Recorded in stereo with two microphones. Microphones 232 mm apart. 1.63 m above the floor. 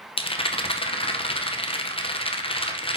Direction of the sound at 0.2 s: 25° left (ahead or behind).